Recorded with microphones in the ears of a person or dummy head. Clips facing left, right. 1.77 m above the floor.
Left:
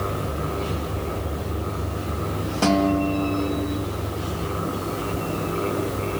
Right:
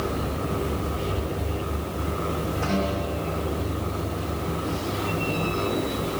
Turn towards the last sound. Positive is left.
turn(degrees=80)